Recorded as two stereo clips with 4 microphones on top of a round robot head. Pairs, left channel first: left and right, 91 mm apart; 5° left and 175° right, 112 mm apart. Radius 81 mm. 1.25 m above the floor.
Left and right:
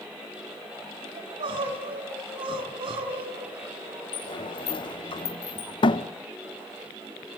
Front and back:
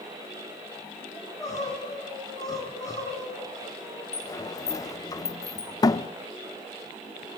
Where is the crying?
60° right, 4 m.